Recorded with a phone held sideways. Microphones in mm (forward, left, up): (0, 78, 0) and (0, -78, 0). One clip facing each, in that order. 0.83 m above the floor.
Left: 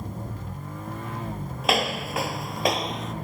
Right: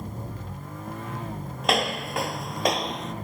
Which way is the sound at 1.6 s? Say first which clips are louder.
Even; 5° left (ahead or behind).